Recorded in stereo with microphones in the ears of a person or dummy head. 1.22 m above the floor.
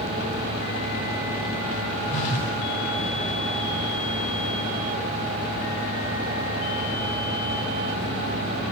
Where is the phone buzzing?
40° left (ahead or behind), 2 m.